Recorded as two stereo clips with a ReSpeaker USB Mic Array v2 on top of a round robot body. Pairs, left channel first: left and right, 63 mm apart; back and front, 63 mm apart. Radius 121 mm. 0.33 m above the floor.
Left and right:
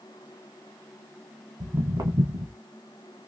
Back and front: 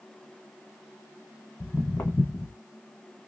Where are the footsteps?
120° right, 1.1 m.